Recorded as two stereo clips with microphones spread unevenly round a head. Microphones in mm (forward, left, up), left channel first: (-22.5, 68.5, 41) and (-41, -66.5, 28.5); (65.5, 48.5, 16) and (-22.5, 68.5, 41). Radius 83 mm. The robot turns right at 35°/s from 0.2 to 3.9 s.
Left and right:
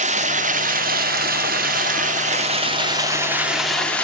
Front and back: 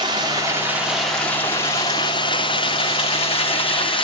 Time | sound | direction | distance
0.0 | running water | 130° right | 1.8 m